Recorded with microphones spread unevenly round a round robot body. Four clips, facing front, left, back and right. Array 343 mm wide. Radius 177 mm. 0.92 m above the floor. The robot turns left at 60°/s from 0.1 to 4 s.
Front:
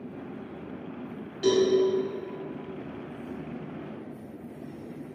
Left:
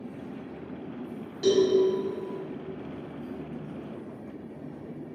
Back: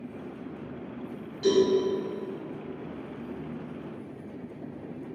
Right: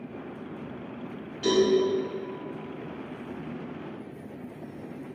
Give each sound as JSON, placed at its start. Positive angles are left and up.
{"t": 1.4, "sound": "a cowbell", "azimuth_deg": 40, "distance_m": 1.4}